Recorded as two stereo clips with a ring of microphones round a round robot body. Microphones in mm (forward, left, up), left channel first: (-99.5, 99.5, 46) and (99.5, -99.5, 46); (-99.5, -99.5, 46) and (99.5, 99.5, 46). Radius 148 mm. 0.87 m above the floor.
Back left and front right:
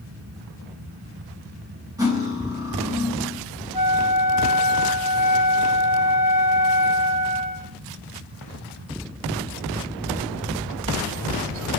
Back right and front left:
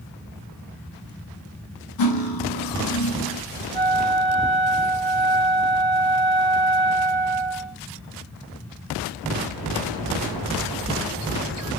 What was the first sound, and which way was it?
Cutlery clinking, 125° right.